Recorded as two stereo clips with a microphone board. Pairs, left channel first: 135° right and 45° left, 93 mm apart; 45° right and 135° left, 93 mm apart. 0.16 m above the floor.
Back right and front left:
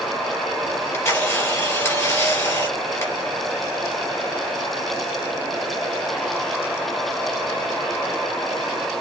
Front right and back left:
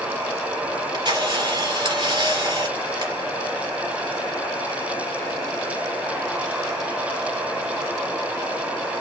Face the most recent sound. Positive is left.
turn(degrees=165)